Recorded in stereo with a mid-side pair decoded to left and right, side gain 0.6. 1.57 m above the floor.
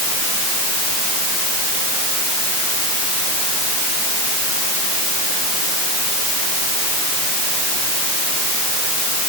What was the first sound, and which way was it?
Only background noise.